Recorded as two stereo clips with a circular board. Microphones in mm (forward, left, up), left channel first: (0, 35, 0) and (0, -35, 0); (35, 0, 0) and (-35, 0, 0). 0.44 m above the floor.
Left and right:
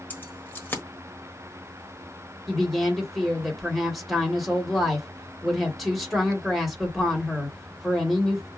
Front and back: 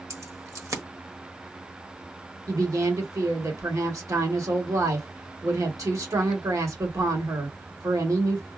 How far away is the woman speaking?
About 1.6 m.